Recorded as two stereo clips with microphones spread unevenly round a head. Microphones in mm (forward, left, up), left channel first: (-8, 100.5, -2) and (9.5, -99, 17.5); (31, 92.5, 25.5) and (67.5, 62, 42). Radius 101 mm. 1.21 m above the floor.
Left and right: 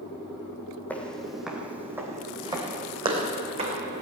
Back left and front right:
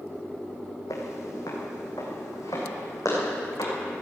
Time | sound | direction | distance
0.9 | footsteps | straight behind | 2 m